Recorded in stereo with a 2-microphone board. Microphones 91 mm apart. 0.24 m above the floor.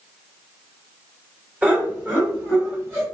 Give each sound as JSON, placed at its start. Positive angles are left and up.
{"t": 1.6, "sound": "laughter", "side_deg": -20, "distance_m": 1.8}